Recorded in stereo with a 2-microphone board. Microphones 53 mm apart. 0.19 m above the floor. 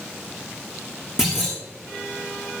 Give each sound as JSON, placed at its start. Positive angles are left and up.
{"t": 1.2, "sound": "a clunk", "side_deg": -10, "distance_m": 6.0}